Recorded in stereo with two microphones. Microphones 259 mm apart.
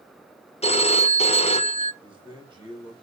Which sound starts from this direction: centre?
A man speaking, at 2.0 s.